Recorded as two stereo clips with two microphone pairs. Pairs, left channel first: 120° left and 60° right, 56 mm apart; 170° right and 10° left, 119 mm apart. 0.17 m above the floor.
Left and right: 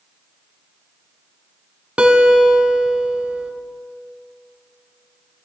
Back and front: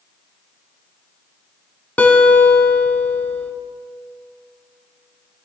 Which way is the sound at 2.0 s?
105° right.